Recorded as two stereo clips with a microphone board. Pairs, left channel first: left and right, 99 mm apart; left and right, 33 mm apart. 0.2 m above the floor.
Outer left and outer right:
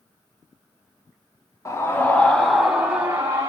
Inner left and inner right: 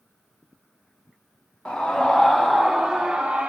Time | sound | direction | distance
1.6 | a scream | 30° left (ahead or behind) | 1.3 m